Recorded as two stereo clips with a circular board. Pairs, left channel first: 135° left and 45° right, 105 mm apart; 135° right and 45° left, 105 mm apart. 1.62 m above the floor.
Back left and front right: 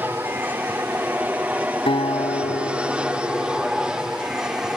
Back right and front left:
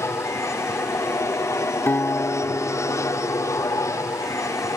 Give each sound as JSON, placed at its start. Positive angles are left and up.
{"t": 0.0, "sound": "an aircraft", "azimuth_deg": -100}
{"t": 1.9, "sound": "a guitar", "azimuth_deg": 160}